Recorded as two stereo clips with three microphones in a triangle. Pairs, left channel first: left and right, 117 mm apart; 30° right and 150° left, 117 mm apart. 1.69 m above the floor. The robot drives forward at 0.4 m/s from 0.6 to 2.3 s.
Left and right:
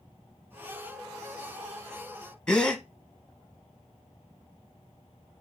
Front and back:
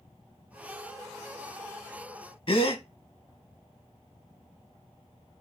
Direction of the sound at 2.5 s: 5° left.